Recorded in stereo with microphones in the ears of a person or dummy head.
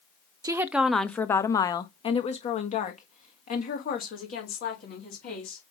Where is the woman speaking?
20° right (ahead or behind), 0.6 m; by 5.6 s 55° left (ahead or behind), 3 m.